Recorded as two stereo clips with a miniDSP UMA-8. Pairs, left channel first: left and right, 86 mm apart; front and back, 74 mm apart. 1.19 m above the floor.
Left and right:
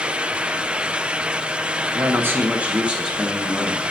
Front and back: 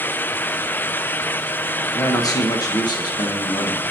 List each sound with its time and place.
1.9 s a man speaking: 35° right, 1.3 m; by 3.8 s straight ahead, 1.8 m